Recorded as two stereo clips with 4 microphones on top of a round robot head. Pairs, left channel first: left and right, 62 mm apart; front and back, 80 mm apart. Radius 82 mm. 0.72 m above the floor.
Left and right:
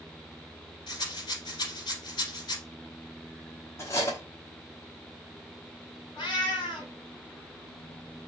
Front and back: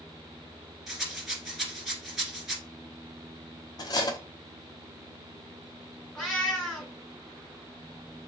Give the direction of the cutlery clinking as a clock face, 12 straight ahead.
11 o'clock.